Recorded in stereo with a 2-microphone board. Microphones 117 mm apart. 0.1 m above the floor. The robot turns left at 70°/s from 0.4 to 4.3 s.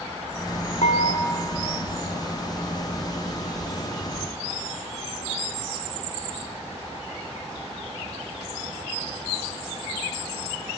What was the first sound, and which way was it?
Dishes clattering, 70° left.